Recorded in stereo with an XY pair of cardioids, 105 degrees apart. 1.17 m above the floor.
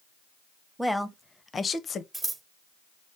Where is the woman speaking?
5° right, 0.9 m; by 2.0 s 55° left, 0.8 m.